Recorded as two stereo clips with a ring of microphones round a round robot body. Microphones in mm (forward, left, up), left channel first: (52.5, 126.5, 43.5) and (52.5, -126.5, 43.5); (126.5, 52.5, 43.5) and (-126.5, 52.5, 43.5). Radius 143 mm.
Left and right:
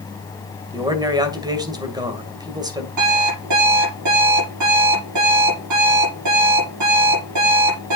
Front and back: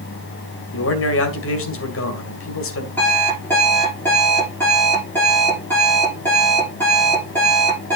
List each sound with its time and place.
0.7 s a man speaking: 20° right, 2 m
3.0 s an alarm clock: 85° right, 6 m